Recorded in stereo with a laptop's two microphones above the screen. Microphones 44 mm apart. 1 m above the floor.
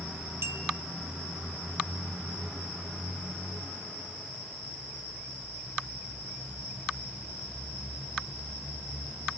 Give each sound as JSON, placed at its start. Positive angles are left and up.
{"t": 0.4, "sound": "a clink", "side_deg": -90, "distance_m": 1.9}